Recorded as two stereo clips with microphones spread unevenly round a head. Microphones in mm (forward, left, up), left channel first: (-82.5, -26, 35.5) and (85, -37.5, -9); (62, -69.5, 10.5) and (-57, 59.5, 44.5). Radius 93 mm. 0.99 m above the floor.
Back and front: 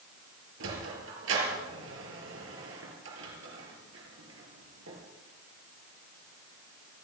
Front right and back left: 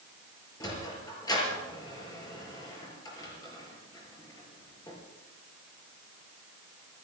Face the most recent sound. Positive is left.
turn(degrees=25)